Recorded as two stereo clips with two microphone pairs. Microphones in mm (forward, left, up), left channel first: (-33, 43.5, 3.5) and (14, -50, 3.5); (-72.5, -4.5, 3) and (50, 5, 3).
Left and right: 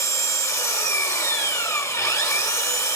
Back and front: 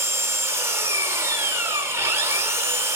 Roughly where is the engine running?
Ahead left.